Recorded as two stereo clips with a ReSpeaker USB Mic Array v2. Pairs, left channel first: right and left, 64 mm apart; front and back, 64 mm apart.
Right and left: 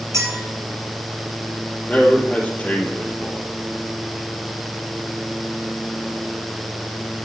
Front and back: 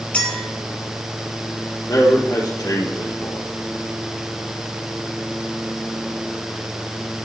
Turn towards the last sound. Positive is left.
turn(degrees=-20)